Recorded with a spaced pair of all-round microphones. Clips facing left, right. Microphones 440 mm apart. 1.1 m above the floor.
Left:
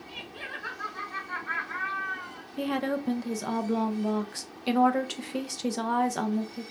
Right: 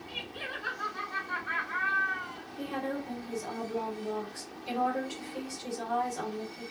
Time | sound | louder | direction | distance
0.1 | laughter | right 1 dB | 50° right (ahead or behind) | 1.7 m
2.6 | a woman speaking | left 6 dB | 85° left | 0.7 m